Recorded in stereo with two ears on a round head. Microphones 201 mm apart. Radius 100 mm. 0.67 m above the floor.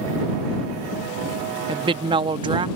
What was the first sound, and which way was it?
A woman speaking, 20° right (ahead or behind).